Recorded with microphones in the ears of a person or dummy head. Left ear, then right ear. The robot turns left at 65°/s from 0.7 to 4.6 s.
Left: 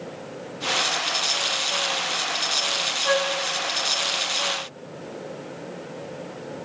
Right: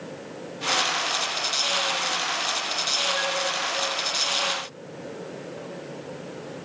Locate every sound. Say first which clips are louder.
3.1 s a flute: left 3 dB; 50° left (ahead or behind), 0.6 m; by 3.3 s 40° left (ahead or behind), 0.6 m